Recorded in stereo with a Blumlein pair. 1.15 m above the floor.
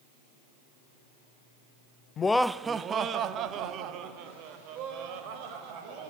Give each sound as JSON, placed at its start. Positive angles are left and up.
{"t": 2.2, "sound": "laughter", "azimuth_deg": 25, "distance_m": 0.5}